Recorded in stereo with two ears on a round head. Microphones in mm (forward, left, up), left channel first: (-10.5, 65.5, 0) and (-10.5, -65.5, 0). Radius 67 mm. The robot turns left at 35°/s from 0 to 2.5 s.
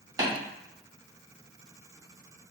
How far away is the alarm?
I don't hear an alarm.